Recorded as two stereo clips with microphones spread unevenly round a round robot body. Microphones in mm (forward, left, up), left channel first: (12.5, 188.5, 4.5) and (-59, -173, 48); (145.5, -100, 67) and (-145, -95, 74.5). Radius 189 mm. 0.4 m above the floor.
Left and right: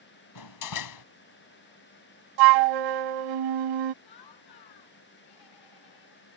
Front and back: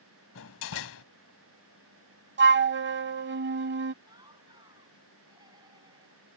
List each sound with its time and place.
0.3 s a door slam: 45° left
2.4 s a flute: 125° right
4.0 s laughter: 100° left